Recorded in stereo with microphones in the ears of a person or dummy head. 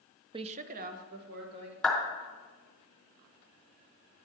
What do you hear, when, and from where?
0.3 s a woman speaking: 20° right (ahead or behind), 0.5 m; by 1.7 s 60° right (ahead or behind), 2.5 m
1.8 s a clap: 10° left (ahead or behind), 2.5 m